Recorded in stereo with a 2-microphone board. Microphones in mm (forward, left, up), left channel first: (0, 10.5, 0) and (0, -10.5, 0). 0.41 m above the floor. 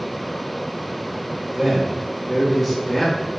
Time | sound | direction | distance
1.5 | a man speaking | 35° right (ahead or behind) | 1.5 m